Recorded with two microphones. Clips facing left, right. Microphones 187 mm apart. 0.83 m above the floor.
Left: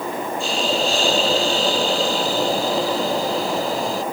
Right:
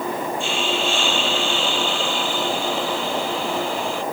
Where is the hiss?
40° left (ahead or behind).